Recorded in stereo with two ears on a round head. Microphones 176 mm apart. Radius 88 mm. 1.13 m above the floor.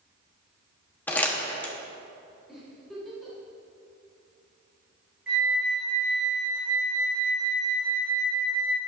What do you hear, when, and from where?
1.1 s crumpling: 10° left (ahead or behind), 1.1 m
2.5 s a giggle: centre (ahead or behind), 3.5 m
5.3 s a flute: 5° right (ahead or behind), 2 m